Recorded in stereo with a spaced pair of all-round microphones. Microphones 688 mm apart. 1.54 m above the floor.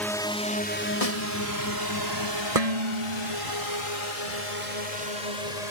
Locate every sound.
0.0 s a drone: centre (ahead or behind); by 5.7 s 65° left (ahead or behind)
1.0 s a snare drum: 55° left (ahead or behind)
2.5 s dishes clattering: 60° right (ahead or behind)